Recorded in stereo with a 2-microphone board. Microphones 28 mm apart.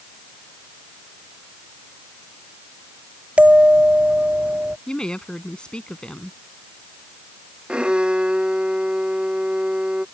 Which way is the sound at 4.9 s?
35° left (ahead or behind).